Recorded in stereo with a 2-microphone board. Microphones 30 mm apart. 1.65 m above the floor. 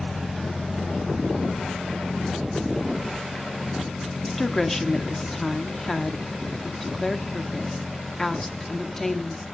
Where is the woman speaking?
15° left (ahead or behind), 1.1 m.